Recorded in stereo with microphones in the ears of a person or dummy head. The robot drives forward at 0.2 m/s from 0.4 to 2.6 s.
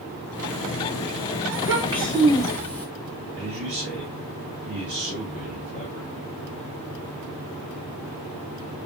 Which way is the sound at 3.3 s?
60° right (ahead or behind).